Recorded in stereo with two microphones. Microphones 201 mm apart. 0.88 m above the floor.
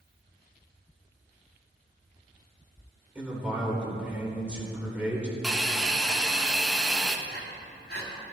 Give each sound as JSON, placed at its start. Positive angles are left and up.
{"t": 3.1, "sound": "a man speaking", "side_deg": -5, "distance_m": 3.0}
{"t": 5.4, "sound": "a hiss", "side_deg": -5, "distance_m": 0.7}
{"t": 7.3, "sound": "breathing", "side_deg": 60, "distance_m": 2.5}